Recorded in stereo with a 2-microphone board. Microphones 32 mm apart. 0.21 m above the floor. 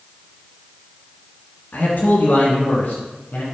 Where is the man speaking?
55° left (ahead or behind), 2.5 m; by 3.4 s 50° left (ahead or behind), 2.5 m.